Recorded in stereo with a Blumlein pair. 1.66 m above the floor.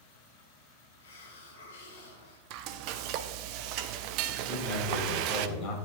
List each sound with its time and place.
1.0 s a hiss: 60° left, 2.5 m
2.5 s frying: 40° right, 0.6 m
4.5 s a man speaking: 35° left, 4.5 m